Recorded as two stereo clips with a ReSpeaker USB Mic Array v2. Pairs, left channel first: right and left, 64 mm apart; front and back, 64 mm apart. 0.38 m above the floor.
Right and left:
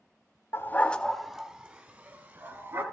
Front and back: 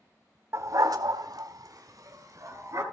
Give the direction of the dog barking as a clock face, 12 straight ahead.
5 o'clock.